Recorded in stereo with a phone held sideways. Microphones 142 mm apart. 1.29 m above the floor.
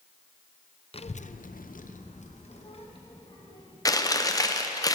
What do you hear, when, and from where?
0.9 s a child speaking: 45° left (ahead or behind), 0.6 m; by 3.8 s 35° left (ahead or behind), 1.8 m
3.9 s chewing: 25° left (ahead or behind), 0.8 m